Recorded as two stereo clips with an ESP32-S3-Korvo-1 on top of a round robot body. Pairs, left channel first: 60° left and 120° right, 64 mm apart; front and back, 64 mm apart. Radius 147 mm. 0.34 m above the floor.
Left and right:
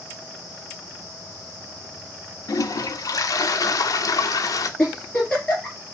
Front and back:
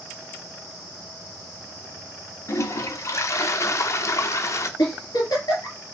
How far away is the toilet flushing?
About 0.5 m.